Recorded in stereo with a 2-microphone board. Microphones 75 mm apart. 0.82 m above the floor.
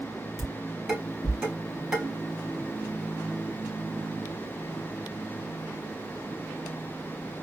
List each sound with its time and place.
0.4 s dishes clattering: 5° right (ahead or behind), 2 m